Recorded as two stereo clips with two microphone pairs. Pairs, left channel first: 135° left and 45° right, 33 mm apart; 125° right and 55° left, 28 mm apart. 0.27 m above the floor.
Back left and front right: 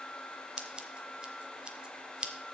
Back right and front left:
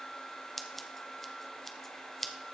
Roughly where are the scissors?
Ahead right.